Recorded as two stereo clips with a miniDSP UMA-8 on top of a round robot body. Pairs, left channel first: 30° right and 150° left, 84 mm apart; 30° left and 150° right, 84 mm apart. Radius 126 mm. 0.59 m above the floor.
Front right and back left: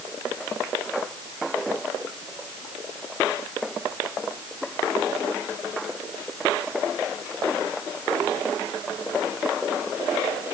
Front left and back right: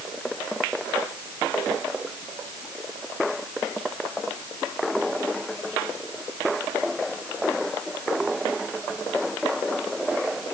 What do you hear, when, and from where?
Only background noise.